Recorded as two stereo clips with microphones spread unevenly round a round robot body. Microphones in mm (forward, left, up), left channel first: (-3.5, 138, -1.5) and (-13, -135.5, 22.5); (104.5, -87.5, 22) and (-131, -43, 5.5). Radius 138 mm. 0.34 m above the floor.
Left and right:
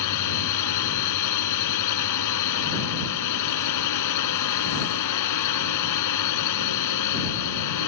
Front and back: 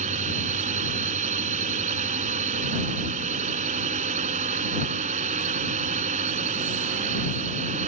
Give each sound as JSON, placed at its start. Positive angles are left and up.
{"t": 0.0, "sound": "a drone", "azimuth_deg": 105}